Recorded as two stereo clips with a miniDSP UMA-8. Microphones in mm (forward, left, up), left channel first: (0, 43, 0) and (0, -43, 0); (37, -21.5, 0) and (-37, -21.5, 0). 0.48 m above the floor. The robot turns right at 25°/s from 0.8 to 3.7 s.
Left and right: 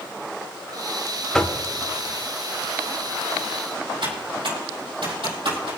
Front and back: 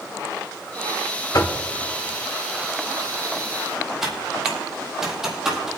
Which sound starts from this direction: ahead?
Knocking, at 1.3 s.